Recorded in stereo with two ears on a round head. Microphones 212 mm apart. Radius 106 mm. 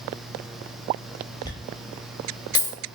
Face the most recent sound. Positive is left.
turn(degrees=15)  # may be behind; listen again after turning